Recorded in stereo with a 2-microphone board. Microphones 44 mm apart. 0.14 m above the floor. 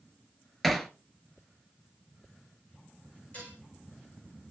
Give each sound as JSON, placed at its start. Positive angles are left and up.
{"t": 0.6, "sound": "hammering", "side_deg": 0, "distance_m": 1.5}
{"t": 3.3, "sound": "dishes clattering", "side_deg": 35, "distance_m": 7.5}